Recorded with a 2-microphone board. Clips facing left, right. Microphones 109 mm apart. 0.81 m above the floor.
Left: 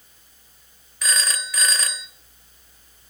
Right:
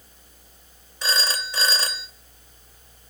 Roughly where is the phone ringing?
Right.